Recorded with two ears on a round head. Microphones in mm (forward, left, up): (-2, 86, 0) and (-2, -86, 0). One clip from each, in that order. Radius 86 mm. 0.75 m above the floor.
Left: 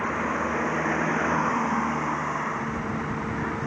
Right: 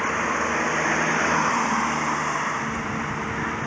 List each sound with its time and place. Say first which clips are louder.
0.0 s a vehicle: right 3 dB; 85° right; by 3.7 s 75° right (ahead or behind)